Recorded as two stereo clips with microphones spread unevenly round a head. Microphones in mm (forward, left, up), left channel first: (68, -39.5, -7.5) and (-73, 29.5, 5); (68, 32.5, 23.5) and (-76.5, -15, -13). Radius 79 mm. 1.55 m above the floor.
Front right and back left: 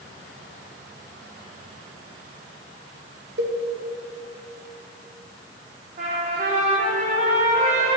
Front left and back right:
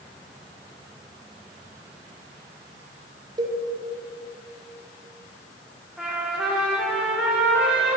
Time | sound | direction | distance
3.4 | a cowbell | 135° left | 2.0 m
6.0 | a trumpet | 110° left | 3.5 m